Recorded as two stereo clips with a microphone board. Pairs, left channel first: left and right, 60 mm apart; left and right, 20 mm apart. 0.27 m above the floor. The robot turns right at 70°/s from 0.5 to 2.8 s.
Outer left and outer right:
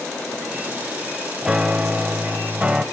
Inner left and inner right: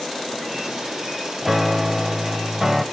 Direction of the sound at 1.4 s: 10° right (ahead or behind).